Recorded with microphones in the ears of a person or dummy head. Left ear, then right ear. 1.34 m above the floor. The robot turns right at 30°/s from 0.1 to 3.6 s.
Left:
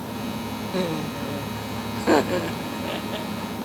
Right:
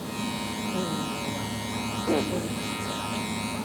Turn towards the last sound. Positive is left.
turn(degrees=155)